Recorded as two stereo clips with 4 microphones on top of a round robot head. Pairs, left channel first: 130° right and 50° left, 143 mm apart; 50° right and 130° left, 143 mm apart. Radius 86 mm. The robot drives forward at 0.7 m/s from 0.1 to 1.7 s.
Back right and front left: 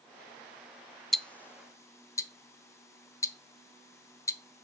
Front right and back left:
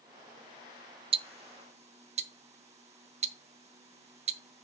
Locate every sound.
1.1 s ticking: 140° left, 0.5 m; by 4.6 s 165° left, 0.8 m